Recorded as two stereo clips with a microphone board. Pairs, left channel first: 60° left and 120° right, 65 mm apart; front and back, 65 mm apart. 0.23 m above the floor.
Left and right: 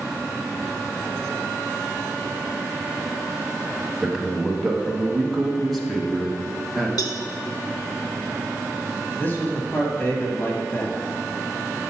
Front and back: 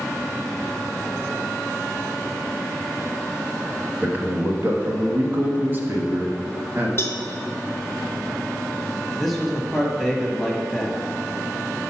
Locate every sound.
4.0 s a man speaking: 150° left, 1.2 m
7.0 s a cowbell: 45° left, 0.7 m
9.2 s a man speaking: 80° left, 1.4 m